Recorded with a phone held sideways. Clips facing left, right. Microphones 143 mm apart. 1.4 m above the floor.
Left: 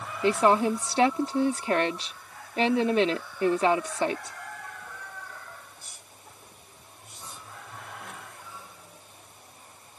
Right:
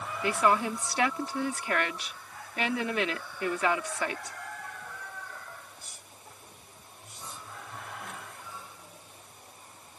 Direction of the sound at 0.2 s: 30° left (ahead or behind).